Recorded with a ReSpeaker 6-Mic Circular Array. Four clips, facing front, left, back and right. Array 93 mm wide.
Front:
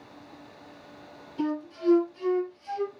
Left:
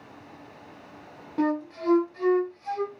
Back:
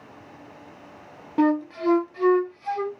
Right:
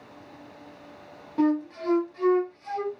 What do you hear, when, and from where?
1.4 s a flute: straight behind, 1.2 m